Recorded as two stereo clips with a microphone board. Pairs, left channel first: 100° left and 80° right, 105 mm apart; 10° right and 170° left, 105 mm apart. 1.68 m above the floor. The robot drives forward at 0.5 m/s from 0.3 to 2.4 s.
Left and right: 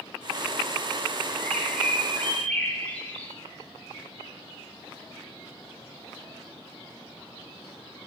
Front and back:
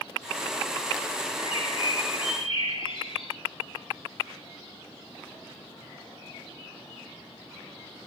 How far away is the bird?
About 5.5 m.